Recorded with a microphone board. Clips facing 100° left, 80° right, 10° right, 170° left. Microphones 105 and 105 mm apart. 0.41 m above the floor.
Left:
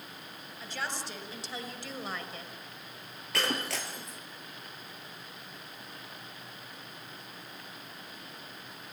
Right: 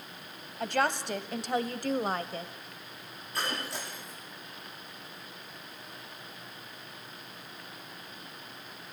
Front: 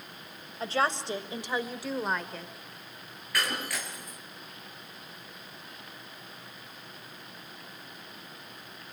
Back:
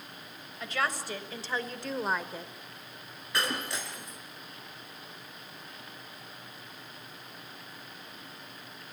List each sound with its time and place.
0.6 s a woman speaking: 65° right, 2 m; by 2.5 s 120° right, 1.4 m
3.3 s breaking glass: 105° left, 4.5 m